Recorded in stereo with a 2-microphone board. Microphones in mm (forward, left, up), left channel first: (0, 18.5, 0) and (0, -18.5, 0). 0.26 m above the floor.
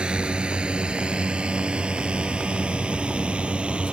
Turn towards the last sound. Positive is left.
turn(degrees=-30)  # may be behind; listen again after turning